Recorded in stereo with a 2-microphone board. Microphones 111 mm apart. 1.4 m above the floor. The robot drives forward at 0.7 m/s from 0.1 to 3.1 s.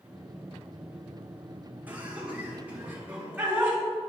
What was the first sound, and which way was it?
Laughter, 15° right (ahead or behind).